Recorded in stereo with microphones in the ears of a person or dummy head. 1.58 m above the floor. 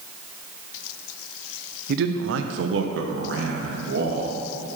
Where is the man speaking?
60° right (ahead or behind), 0.7 m; by 4.4 s 55° right (ahead or behind), 2.5 m.